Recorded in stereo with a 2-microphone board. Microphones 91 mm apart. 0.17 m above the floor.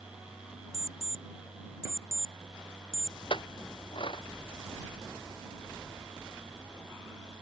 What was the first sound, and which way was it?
An alarm clock, 40° right (ahead or behind).